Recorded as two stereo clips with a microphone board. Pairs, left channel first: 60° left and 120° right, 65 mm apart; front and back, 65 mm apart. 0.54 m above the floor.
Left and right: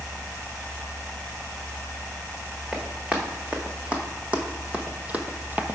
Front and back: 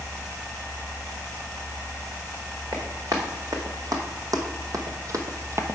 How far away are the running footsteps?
About 2 m.